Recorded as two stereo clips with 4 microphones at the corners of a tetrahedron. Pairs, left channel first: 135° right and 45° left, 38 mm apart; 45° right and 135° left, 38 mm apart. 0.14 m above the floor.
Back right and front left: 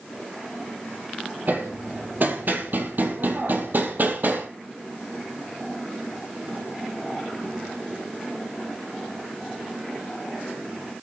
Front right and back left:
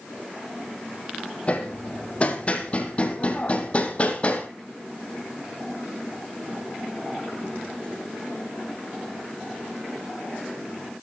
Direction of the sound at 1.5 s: 10° left.